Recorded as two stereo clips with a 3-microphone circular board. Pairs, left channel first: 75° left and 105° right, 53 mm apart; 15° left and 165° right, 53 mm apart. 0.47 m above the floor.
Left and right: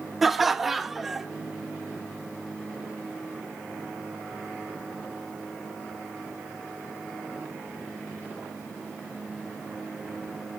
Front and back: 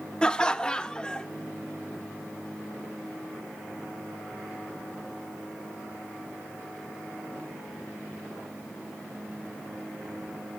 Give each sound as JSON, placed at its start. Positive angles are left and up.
{"t": 0.2, "sound": "laughter", "azimuth_deg": -25, "distance_m": 0.7}